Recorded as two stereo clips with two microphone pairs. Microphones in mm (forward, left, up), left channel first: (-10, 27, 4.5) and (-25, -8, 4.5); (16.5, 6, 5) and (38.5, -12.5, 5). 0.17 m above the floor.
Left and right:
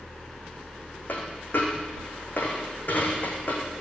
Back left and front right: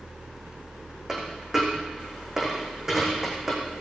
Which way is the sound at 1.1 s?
35° left.